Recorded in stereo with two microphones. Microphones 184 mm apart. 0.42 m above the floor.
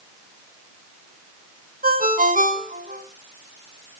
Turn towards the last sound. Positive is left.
turn(degrees=-50)  # may be behind; listen again after turning